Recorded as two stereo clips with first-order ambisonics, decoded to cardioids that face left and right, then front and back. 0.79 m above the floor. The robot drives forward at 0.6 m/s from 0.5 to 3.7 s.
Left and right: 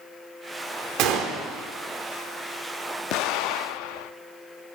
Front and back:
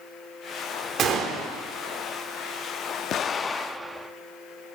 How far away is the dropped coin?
No dropped coin in this recording.